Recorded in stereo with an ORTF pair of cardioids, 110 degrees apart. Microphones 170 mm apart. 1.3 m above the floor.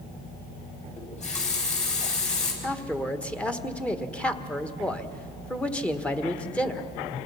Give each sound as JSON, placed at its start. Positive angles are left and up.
{"t": 1.0, "sound": "a running tap", "azimuth_deg": 45, "distance_m": 5.5}
{"t": 2.6, "sound": "a man speaking", "azimuth_deg": 10, "distance_m": 1.4}